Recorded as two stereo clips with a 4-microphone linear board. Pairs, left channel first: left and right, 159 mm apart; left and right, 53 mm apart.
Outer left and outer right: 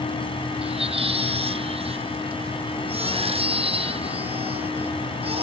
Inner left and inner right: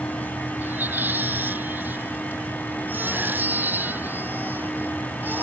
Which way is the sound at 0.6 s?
40° right (ahead or behind).